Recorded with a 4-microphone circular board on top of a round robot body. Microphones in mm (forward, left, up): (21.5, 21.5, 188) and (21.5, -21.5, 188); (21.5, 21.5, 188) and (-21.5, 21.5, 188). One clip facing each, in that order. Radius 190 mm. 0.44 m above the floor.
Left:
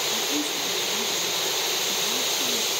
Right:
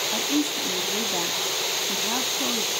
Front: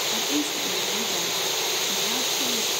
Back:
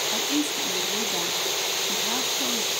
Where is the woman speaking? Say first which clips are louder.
Right 2 dB, back 1 dB; 115° right, 1.8 m.